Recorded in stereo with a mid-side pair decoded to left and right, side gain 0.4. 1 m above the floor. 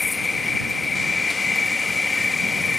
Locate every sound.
0.0 s an insect: 25° left